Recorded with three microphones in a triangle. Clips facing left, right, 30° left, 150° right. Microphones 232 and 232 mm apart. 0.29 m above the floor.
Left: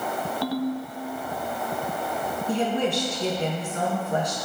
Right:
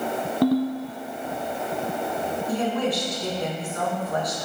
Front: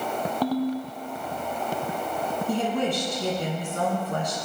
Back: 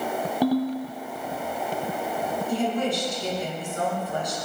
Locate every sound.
0.4 s a ringtone: 75° right, 0.9 m
2.5 s a woman speaking: 30° left, 3 m